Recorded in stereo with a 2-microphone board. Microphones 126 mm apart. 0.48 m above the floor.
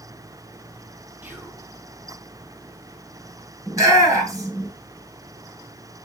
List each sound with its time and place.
1.2 s whispering: 15° right (ahead or behind), 5 m
3.7 s a shout: 25° right (ahead or behind), 7 m